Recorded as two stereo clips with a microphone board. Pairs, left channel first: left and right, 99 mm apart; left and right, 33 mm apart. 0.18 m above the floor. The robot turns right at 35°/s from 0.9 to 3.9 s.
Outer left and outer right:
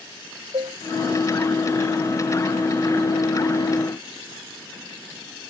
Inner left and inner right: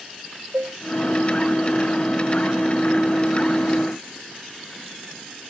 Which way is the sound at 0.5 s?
70° right (ahead or behind).